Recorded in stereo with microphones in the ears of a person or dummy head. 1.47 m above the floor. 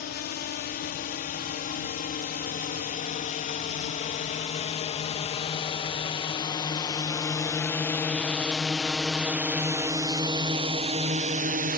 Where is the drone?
45° left (ahead or behind); by 11.8 s 40° right (ahead or behind).